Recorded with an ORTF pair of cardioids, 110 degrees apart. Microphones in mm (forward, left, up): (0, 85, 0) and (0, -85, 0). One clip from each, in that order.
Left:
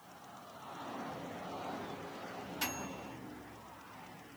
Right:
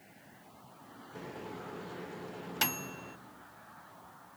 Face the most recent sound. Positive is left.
turn(degrees=-60)